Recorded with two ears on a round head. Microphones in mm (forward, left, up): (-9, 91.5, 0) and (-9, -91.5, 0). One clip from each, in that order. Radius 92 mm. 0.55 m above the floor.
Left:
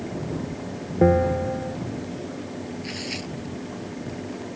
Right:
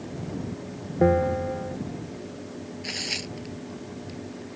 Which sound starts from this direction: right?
Tearing paper, at 2.8 s.